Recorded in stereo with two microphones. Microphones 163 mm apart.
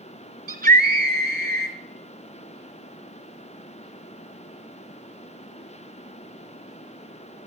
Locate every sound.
0.5 s a scream: 65° right (ahead or behind), 2 m